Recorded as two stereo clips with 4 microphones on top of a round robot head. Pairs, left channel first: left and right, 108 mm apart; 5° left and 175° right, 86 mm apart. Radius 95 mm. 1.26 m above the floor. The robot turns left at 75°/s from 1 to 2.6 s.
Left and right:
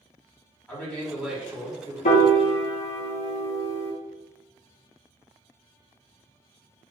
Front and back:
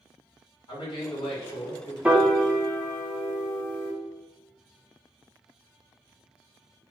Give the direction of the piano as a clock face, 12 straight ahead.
8 o'clock.